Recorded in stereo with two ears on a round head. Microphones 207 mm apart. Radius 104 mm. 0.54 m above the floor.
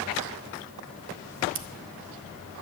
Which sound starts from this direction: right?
Scissors, at 1.6 s.